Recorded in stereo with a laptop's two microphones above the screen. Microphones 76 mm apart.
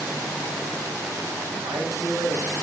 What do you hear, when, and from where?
1.6 s a man speaking: 55° right (ahead or behind), 6 m